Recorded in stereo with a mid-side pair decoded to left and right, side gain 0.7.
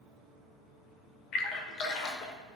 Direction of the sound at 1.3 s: 50° left.